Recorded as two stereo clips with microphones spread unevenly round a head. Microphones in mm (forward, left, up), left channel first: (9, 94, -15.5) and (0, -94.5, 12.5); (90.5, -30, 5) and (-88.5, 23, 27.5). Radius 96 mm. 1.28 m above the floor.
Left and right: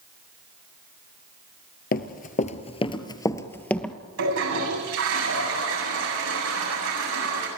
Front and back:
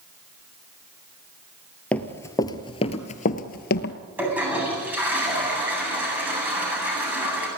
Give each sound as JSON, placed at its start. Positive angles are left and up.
{"t": 1.9, "sound": "running footsteps", "azimuth_deg": 75, "distance_m": 1.5}
{"t": 4.2, "sound": "a toilet flushing", "azimuth_deg": -115, "distance_m": 8.5}